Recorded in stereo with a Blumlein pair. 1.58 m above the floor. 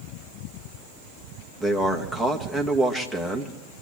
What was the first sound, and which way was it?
A man speaking, 5° left.